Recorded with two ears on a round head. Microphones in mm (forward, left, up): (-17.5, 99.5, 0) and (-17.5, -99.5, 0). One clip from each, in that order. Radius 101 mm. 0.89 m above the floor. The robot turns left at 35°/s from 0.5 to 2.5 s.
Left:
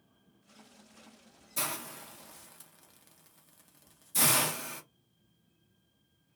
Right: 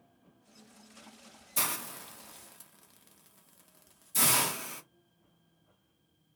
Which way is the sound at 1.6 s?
20° right (ahead or behind).